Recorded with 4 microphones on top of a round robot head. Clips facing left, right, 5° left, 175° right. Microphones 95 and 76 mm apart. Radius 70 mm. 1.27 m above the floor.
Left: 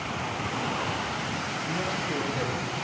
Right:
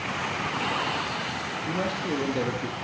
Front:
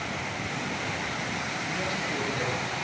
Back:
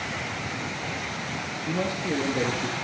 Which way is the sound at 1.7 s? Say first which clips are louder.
Right 4 dB, back 7 dB; 135° right.